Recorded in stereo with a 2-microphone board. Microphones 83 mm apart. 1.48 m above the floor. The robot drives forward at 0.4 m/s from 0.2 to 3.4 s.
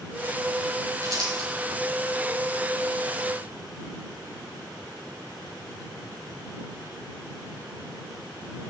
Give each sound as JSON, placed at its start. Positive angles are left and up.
{"t": 1.0, "sound": "crumpling", "side_deg": -55, "distance_m": 6.0}